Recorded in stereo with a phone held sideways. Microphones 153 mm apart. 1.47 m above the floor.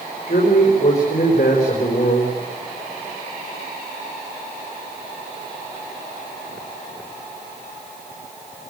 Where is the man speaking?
50° left (ahead or behind), 5 m.